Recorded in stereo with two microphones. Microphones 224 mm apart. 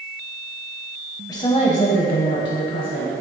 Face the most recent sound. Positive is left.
turn(degrees=65)  # may be behind; listen again after turning